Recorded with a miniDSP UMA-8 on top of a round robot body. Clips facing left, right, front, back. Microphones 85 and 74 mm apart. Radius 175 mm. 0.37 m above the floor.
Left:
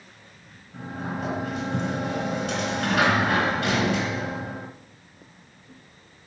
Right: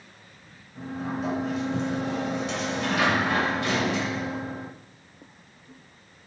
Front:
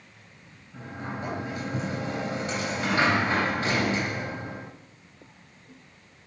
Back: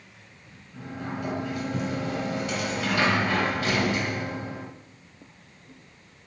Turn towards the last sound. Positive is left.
turn(degrees=55)